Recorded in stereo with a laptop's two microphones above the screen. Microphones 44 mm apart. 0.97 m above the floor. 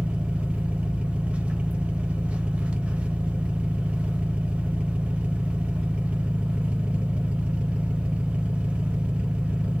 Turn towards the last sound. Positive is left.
turn(degrees=-25)  # may be behind; listen again after turning